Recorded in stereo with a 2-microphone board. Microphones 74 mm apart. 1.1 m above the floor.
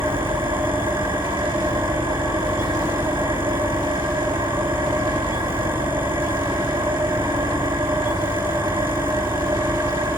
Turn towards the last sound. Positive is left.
turn(degrees=-85)